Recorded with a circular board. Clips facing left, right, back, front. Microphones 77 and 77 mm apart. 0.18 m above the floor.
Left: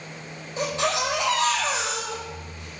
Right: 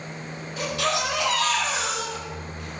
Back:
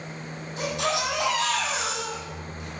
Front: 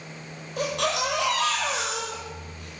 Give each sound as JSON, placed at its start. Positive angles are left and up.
{"t": 0.6, "sound": "a baby crying", "azimuth_deg": 20, "distance_m": 3.5}